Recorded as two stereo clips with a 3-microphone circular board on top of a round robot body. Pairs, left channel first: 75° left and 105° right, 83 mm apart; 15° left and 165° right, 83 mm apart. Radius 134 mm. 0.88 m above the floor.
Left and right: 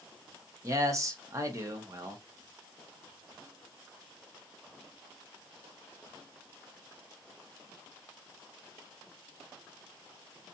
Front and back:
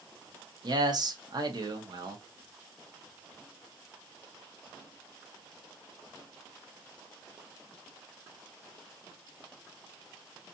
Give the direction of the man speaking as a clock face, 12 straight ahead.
5 o'clock.